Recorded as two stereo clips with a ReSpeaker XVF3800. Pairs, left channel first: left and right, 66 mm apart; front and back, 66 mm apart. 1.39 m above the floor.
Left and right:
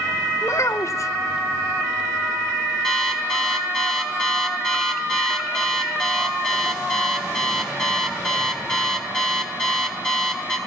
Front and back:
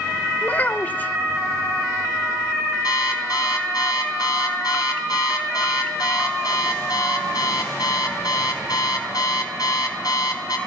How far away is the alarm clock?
About 5 m.